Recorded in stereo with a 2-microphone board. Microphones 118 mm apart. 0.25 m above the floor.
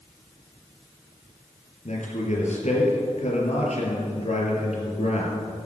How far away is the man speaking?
About 4 m.